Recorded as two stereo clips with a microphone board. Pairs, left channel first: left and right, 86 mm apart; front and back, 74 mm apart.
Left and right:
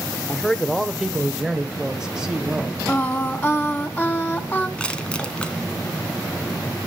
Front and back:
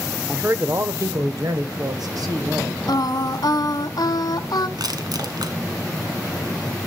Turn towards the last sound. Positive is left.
turn(degrees=165)